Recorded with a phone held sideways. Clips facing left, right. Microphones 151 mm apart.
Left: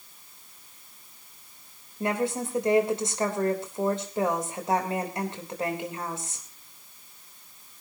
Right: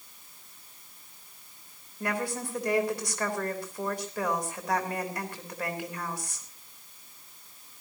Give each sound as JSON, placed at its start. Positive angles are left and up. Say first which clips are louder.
{"t": 2.0, "sound": "a woman speaking", "louder": "left 5 dB", "side_deg": 25, "distance_m": 3.5}